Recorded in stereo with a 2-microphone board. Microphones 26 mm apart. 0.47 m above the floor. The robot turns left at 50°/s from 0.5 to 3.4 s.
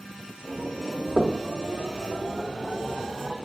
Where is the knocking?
30° right (ahead or behind), 0.8 m.